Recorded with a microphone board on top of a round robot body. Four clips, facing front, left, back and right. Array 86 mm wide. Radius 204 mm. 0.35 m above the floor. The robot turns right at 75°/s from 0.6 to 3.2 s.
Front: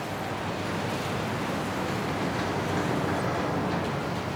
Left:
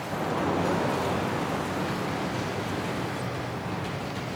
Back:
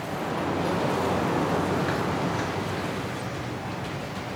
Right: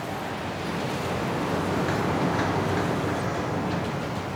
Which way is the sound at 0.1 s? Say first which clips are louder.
Left 4 dB, back 8 dB; 125° left.